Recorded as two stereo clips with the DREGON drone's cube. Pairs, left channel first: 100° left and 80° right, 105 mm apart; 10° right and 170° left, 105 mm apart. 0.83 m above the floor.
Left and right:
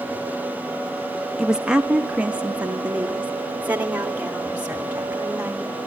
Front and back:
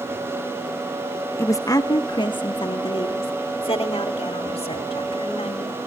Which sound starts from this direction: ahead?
A woman speaking, at 1.4 s.